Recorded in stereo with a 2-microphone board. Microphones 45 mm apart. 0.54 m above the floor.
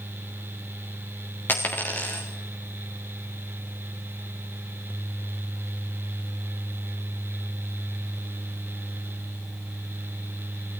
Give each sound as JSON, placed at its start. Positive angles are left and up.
{"t": 1.5, "sound": "a dropped coin", "side_deg": 50, "distance_m": 2.5}